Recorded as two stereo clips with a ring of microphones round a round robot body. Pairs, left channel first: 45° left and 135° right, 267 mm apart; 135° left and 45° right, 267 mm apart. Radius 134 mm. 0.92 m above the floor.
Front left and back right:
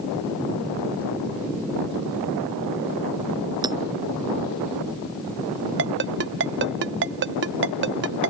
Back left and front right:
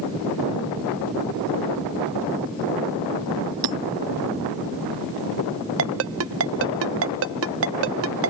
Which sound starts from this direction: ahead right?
Hammering, at 3.6 s.